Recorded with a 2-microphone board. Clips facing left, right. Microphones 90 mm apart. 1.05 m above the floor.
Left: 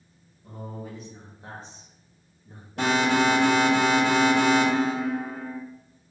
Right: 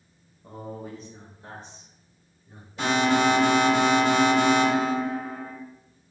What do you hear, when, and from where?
0.4 s a man speaking: 25° right (ahead or behind), 1.2 m; by 3.8 s 75° left (ahead or behind), 3 m
2.8 s an alarm: 65° left (ahead or behind), 1.9 m